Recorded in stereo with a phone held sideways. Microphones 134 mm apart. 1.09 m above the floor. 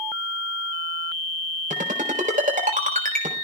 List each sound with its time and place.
1.7 s a ringtone: 80° right, 3.5 m